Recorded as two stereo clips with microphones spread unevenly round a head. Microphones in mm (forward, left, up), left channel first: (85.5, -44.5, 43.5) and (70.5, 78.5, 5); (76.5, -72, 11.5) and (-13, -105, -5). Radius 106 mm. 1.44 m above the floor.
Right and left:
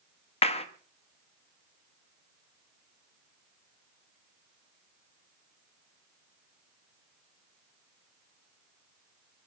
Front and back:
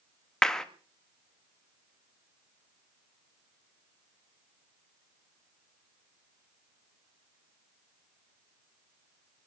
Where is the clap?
60° right, 1.5 m.